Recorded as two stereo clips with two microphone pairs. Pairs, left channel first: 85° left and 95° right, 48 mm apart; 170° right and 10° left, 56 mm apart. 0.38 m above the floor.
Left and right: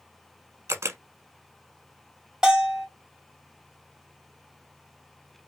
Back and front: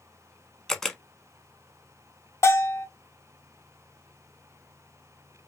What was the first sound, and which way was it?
A camera shutter, 90° right.